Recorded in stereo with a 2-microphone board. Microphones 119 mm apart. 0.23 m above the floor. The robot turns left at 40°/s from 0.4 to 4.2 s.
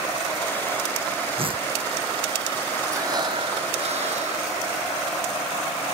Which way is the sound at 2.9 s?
25° right.